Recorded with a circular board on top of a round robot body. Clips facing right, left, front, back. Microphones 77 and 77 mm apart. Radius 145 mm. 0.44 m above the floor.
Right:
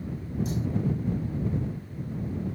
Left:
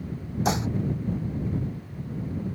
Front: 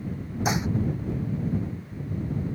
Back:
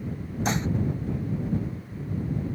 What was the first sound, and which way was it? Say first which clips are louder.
Dishes clattering: left 9 dB, front 1 dB; 80° left.